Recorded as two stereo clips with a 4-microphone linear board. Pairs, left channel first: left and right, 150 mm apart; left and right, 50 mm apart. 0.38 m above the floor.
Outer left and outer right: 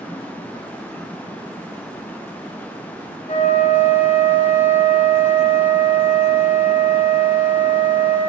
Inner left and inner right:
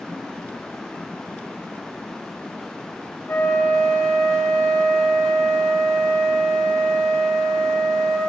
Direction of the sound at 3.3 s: 60° left (ahead or behind).